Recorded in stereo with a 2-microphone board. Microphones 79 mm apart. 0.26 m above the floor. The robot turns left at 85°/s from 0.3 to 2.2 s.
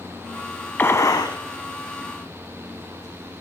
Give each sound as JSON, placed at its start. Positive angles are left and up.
{"t": 0.8, "sound": "a gunshot", "azimuth_deg": 155, "distance_m": 0.5}